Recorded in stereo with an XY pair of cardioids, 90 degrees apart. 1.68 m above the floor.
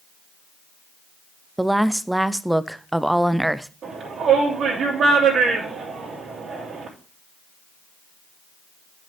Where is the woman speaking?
5° right, 0.6 m.